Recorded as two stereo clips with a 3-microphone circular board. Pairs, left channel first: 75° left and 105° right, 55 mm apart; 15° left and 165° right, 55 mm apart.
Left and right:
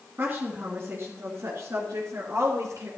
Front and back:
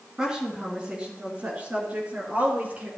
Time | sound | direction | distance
0.2 | a woman speaking | 95° right | 2.0 m